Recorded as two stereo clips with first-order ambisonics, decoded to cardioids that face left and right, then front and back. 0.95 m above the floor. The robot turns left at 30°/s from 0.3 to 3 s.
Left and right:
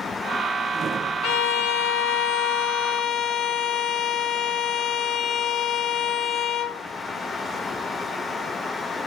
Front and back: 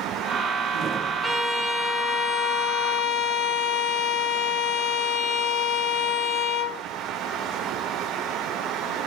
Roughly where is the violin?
Left.